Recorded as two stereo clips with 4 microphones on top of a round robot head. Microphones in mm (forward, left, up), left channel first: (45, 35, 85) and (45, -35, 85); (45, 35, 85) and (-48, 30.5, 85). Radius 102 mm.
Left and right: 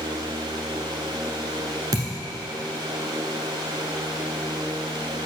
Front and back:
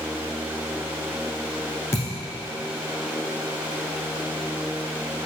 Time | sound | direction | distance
1.9 | a thud | 65° right | 1.2 m